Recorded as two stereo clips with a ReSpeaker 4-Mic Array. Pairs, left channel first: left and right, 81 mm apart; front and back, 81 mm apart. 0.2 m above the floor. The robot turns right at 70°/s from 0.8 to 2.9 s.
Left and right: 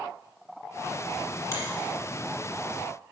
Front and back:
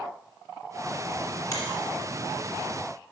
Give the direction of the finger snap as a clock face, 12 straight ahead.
11 o'clock.